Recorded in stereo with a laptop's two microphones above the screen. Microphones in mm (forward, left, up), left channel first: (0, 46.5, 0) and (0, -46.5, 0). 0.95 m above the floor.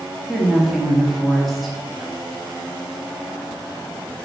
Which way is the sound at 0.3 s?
Centre (ahead or behind).